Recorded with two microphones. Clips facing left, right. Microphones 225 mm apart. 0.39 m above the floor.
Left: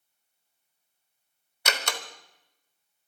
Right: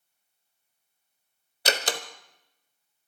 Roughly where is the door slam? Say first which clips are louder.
Right 4 dB; right.